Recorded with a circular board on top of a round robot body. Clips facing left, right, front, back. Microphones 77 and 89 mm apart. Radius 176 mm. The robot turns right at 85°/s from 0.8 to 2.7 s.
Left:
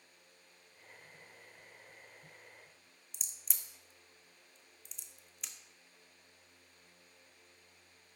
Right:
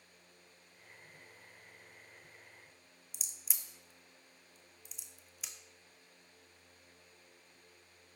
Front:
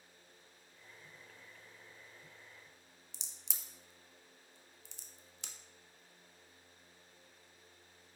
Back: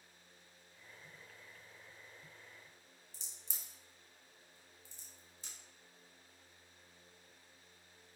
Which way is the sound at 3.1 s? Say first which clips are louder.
Even, front 4 dB; 5° right.